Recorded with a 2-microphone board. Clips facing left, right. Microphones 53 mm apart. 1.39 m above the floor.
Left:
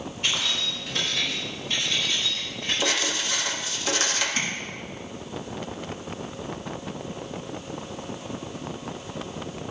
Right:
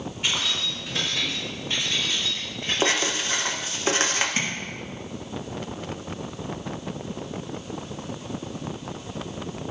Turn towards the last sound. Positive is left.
turn(degrees=-40)  # may be behind; listen again after turning